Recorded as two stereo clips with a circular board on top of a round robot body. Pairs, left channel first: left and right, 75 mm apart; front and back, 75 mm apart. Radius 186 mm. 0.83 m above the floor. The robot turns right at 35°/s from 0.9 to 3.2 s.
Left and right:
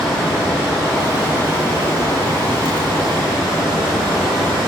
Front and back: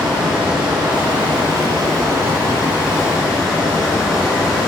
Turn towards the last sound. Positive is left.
turn(degrees=-90)